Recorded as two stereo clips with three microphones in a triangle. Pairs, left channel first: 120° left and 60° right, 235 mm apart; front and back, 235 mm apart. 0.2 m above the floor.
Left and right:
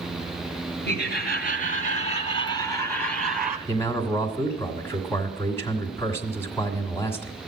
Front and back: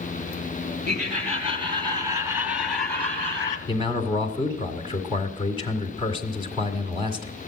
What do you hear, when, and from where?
0.8 s laughter: 135° left, 2.5 m; by 3.6 s 5° left, 1.7 m
3.7 s a man speaking: 175° right, 1.6 m